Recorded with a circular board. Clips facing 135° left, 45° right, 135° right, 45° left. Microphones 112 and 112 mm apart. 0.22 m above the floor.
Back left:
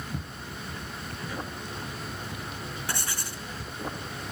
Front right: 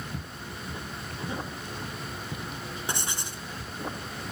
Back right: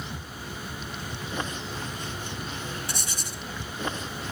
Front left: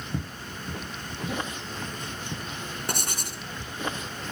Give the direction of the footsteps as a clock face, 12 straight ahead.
10 o'clock.